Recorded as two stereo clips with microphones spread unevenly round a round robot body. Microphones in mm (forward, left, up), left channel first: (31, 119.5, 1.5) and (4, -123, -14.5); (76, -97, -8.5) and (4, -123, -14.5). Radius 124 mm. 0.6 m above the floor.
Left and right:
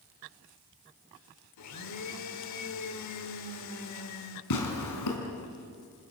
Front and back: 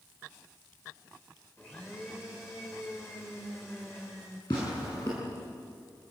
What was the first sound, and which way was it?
A blender, 100° left.